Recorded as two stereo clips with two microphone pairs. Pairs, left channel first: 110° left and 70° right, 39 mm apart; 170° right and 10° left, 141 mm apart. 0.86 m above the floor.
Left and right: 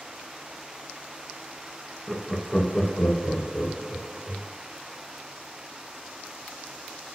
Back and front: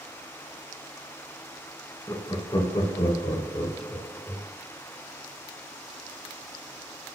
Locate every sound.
2.1 s laughter: 120° right, 0.6 m; by 4.5 s 140° left, 1.3 m